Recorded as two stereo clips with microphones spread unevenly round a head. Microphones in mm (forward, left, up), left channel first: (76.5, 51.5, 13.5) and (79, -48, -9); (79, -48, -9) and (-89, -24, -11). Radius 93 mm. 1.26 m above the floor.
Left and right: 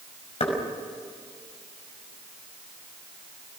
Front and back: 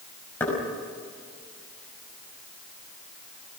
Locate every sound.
0.4 s knocking: 70° left, 5 m